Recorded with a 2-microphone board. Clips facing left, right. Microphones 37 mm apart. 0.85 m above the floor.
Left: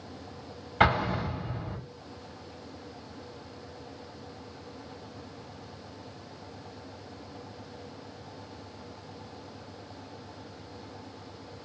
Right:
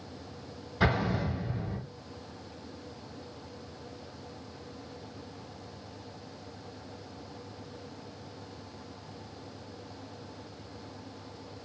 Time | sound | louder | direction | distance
0.8 | an explosion | left 4 dB | 75° left (ahead or behind) | 3 m